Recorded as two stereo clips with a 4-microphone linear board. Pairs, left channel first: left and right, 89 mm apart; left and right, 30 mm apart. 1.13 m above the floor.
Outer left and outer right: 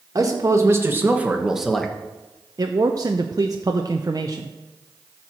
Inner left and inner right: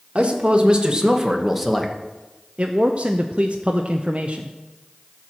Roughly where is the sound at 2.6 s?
Right.